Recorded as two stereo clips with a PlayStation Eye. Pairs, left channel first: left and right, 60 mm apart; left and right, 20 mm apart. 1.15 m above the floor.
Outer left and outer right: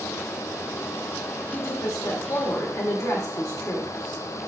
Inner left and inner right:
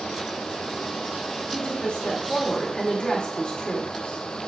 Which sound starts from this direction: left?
A woman speaking, at 1.5 s.